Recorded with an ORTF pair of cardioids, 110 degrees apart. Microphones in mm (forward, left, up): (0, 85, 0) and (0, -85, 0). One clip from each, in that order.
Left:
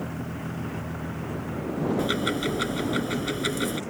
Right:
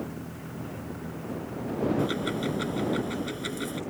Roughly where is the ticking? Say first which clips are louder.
Left 3 dB; ahead left.